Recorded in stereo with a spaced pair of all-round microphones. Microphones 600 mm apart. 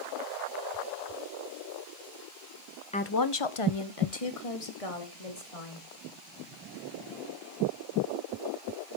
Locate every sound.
2.9 s a woman speaking: 10° left (ahead or behind), 0.6 m; by 5.9 s 65° left (ahead or behind), 3.5 m